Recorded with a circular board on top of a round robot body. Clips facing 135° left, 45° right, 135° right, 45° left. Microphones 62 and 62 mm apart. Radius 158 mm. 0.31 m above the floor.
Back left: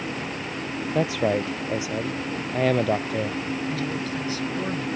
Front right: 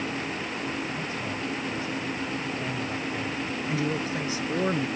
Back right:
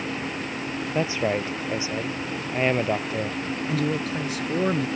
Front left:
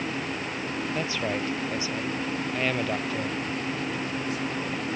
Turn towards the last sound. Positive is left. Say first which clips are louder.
# even, back right 5 dB
turn(degrees=-115)